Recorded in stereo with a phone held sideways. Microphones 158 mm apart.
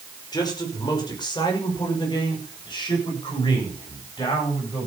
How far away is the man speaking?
About 5.5 m.